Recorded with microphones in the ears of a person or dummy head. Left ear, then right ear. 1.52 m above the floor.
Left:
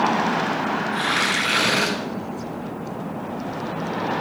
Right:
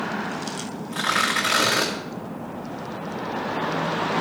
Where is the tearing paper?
35° right (ahead or behind), 3.5 m.